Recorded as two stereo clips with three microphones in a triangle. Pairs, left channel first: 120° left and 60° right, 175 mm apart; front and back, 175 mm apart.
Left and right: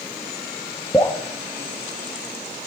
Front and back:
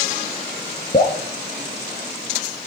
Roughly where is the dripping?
Ahead left.